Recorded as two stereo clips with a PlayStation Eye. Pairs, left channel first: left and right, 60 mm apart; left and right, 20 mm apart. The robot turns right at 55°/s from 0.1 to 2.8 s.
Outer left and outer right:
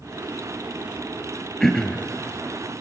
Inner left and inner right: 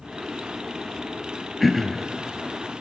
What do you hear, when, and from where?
1.6 s throat clearing: centre (ahead or behind), 1.6 m; by 2.1 s 25° left (ahead or behind), 1.6 m